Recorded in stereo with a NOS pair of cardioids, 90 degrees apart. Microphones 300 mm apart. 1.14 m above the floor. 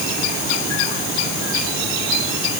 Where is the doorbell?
No doorbell in this recording.